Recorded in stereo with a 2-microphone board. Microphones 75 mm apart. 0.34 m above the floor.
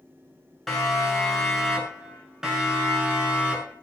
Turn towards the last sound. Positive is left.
turn(degrees=-15)  # may be behind; listen again after turning